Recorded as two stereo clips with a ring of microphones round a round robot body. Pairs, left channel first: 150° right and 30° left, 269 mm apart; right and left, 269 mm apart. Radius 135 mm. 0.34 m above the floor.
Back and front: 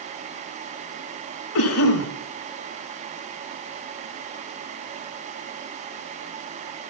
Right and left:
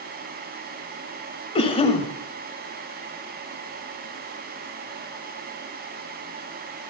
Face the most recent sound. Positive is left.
turn(degrees=-155)